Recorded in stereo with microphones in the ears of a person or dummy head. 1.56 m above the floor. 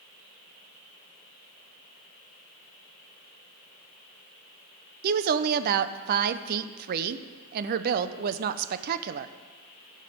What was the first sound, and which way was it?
A woman speaking, 55° right (ahead or behind).